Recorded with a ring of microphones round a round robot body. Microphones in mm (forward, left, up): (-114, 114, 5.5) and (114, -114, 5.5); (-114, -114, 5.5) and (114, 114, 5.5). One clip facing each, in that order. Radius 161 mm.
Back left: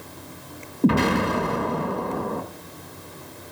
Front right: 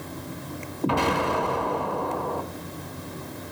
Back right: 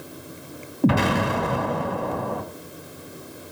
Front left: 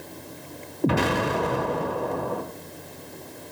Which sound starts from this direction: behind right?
An explosion, at 0.8 s.